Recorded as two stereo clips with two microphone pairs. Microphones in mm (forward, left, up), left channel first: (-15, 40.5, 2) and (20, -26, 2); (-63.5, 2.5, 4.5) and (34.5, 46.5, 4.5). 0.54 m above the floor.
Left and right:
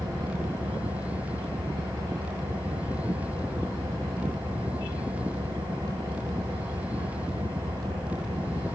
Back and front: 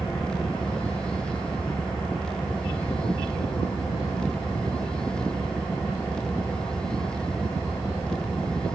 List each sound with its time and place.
0.0 s an engine running: 70° right, 8.5 m